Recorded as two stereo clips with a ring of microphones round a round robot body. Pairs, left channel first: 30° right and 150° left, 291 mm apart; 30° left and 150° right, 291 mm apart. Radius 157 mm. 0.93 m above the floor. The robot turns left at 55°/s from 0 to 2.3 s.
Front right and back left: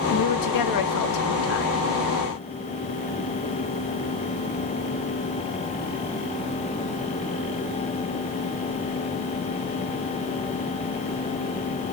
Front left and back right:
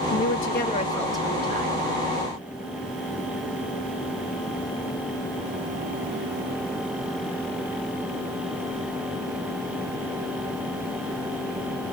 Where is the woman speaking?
5° right, 1.2 m; by 1.9 s 100° right, 1.2 m.